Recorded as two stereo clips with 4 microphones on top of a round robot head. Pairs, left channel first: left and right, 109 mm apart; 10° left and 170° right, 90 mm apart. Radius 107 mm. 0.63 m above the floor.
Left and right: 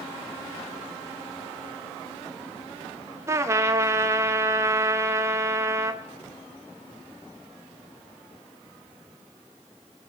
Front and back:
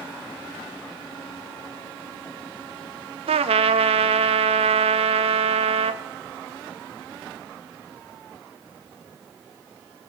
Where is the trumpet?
160° right, 0.5 m.